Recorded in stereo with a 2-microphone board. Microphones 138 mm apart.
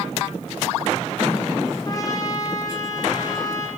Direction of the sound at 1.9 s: 30° left (ahead or behind).